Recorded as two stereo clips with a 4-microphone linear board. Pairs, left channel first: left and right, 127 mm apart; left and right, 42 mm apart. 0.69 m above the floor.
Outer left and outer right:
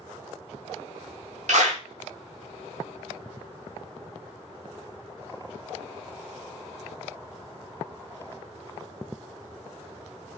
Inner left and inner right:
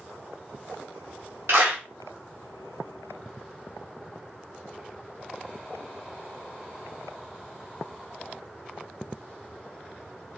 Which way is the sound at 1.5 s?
70° right (ahead or behind).